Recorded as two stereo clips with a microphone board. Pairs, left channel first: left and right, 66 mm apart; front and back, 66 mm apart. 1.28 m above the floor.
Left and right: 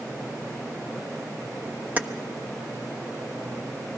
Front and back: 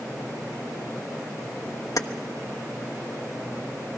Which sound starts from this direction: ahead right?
Keys jangling, at 2.0 s.